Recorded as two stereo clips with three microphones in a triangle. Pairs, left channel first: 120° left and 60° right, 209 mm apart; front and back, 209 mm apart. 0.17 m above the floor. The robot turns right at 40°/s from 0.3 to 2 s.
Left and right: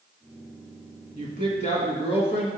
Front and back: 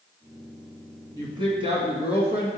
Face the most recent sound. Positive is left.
turn(degrees=150)